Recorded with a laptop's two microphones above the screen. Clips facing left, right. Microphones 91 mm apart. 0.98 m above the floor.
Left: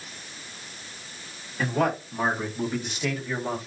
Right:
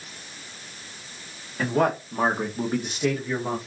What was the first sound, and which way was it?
A man speaking, 45° right (ahead or behind).